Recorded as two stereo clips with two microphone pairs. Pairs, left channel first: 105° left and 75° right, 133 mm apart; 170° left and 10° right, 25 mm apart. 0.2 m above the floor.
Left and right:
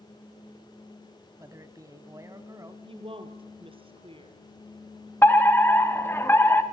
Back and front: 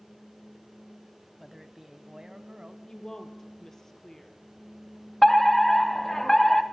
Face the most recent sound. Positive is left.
turn(degrees=125)